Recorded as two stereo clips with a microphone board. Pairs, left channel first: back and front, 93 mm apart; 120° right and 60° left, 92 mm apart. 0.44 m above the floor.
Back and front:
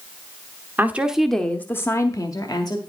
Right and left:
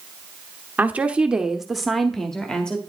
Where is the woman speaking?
20° left, 0.9 m; by 2.8 s 165° left, 1.4 m.